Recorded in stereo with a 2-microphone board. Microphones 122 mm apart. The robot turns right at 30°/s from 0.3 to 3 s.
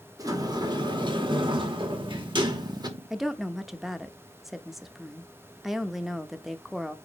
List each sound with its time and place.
0.2 s a sliding door: 130° right, 1.4 m; by 2.9 s 55° right, 1.4 m
3.1 s a woman speaking: centre (ahead or behind), 0.7 m